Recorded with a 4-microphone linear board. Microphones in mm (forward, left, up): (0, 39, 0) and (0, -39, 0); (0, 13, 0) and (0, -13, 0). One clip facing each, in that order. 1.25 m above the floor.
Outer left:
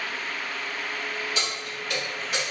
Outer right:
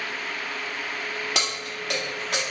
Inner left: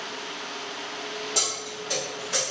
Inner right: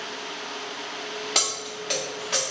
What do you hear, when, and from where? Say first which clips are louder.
1.4 s keys jangling: outer right 2 dB, inner right 3 dB; 80° right, 0.7 m; by 2.4 s 70° right (ahead or behind), 1.3 m